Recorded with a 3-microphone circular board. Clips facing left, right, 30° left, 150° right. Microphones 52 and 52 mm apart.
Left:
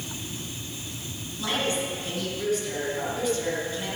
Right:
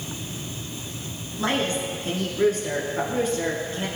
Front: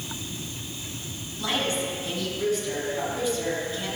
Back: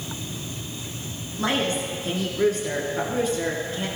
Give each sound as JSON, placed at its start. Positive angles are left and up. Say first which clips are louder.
{"t": 1.4, "sound": "a woman speaking", "louder": "right 3 dB, back 3 dB", "azimuth_deg": -125, "distance_m": 3.0}